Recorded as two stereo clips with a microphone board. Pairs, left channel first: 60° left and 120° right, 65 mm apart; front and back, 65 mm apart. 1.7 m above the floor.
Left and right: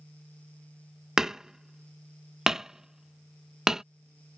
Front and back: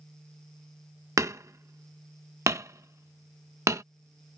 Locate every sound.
1.2 s hammering: 160° left